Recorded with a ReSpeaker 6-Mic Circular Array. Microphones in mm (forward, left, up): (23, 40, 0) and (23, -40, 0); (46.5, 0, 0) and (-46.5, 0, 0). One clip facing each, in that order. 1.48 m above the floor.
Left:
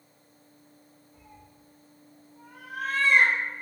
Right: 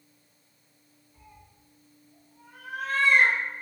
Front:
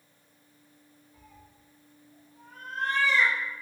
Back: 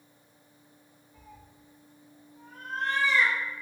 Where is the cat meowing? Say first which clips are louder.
Left 1 dB, back 4 dB; 75° left, 1.1 m; by 3.6 s 15° left, 1.7 m.